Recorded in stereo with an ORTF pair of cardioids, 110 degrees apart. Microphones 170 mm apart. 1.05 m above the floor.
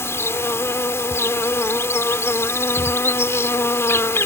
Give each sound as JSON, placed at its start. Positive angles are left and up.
{"t": 0.0, "sound": "an insect", "azimuth_deg": 15}